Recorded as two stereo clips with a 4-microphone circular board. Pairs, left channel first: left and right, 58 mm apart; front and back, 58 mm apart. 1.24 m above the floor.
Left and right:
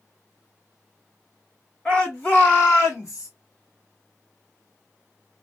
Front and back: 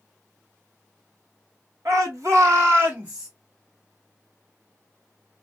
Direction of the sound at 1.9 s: 160° left.